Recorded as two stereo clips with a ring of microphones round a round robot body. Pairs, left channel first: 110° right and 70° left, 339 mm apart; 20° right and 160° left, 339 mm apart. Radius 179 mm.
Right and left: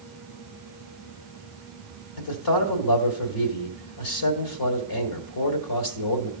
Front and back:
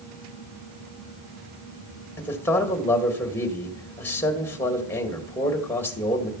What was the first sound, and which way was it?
A man speaking, 105° right.